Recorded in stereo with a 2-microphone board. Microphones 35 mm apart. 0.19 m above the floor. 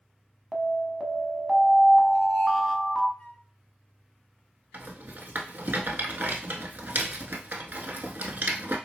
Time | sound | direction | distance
0.5 | an alarm | 5° left (ahead or behind) | 0.8 m
3.2 | a flute | 45° left (ahead or behind) | 0.8 m
4.7 | a rattle | 60° right (ahead or behind) | 0.8 m